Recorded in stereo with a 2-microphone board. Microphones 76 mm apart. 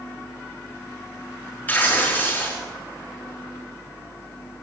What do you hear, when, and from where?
1.7 s tearing paper: 20° left (ahead or behind), 4.5 m